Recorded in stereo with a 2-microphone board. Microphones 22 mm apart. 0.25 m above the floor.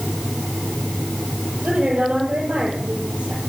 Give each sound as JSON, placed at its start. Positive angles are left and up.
{"t": 1.6, "sound": "a woman speaking", "side_deg": -80, "distance_m": 7.0}